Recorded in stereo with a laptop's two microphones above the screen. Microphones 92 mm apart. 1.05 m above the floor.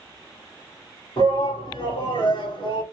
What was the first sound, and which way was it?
A shout, 75° left (ahead or behind).